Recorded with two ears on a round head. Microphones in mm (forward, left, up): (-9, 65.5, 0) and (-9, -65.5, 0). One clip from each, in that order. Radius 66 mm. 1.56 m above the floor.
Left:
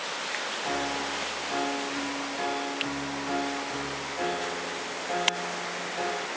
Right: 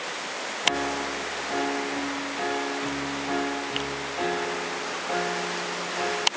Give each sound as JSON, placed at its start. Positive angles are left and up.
{"t": 0.6, "sound": "a piano", "side_deg": -15, "distance_m": 1.6}